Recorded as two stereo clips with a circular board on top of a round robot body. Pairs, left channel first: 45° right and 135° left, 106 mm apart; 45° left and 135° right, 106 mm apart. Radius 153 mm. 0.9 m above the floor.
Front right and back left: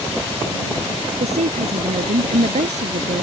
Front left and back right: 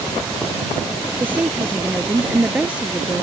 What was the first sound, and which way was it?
A woman speaking, 150° left.